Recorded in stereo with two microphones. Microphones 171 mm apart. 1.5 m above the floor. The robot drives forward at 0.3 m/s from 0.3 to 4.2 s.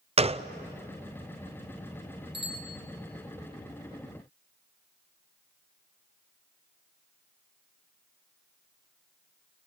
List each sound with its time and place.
0.2 s a gunshot: 35° right (ahead or behind), 0.5 m
2.3 s a bicycle bell: 75° right (ahead or behind), 6 m; by 2.8 s 70° right (ahead or behind), 6 m